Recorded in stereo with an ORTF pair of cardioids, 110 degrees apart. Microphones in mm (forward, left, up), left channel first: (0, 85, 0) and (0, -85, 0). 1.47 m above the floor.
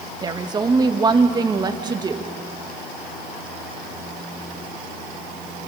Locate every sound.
0.2 s a woman speaking: 25° right, 1.6 m